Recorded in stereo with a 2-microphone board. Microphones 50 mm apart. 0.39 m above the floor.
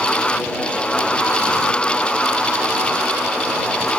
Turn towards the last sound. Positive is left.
No sound to turn to.